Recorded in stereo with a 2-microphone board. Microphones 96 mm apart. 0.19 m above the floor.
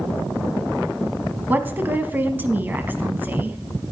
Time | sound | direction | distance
1.5 | a woman speaking | 20° right (ahead or behind) | 1.1 m